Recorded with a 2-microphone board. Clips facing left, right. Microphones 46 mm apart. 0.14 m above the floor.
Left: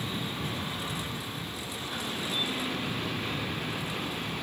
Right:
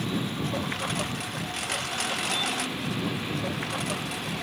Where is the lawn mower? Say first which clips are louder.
Right 4 dB; 70° right (ahead or behind); by 4.4 s 90° right.